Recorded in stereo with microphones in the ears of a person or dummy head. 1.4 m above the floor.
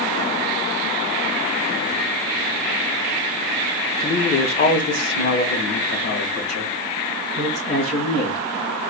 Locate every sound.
4.0 s a man speaking: 20° left (ahead or behind), 0.5 m; by 8.5 s 65° left (ahead or behind), 2.5 m